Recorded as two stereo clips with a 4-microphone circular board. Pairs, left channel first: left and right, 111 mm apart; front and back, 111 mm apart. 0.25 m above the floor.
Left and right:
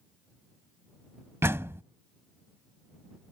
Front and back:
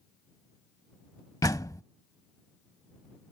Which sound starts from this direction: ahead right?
A door slam, at 1.4 s.